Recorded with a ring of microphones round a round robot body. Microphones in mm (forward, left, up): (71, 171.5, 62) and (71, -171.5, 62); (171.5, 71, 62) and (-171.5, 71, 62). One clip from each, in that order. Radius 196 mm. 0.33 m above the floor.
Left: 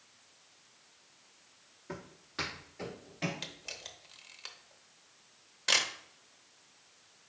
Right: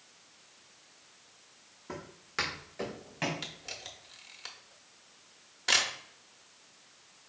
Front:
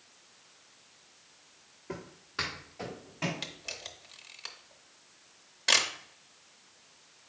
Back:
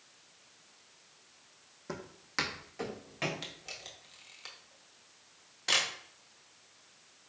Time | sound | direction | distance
1.9 | footsteps | 175° right | 1.1 m
3.4 | a camera shutter | 40° left | 0.7 m